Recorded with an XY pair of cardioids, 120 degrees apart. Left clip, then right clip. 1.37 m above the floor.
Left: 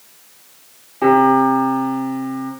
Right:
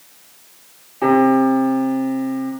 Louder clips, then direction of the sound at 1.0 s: Left 2 dB; 10° left.